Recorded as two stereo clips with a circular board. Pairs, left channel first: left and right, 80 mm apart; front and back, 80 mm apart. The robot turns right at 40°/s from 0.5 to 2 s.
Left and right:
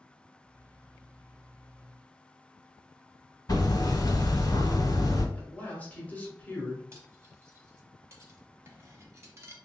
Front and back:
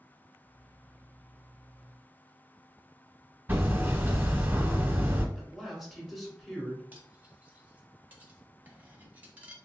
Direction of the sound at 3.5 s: 115° left.